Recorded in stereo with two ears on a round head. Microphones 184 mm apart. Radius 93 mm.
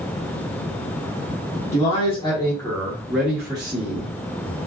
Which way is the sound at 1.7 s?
35° left (ahead or behind).